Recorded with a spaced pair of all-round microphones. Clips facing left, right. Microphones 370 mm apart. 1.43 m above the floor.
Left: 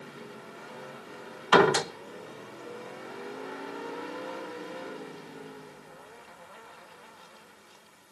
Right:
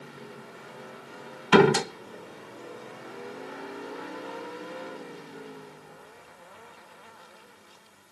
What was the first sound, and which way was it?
A door slam, 40° right (ahead or behind).